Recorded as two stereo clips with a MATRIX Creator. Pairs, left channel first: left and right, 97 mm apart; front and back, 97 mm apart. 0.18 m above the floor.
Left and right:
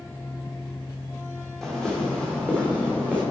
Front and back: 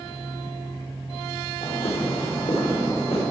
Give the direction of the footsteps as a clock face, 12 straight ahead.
12 o'clock.